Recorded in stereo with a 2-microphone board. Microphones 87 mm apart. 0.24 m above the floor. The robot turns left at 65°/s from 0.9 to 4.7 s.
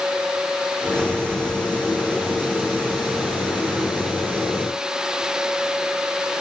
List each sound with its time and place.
Only background noise.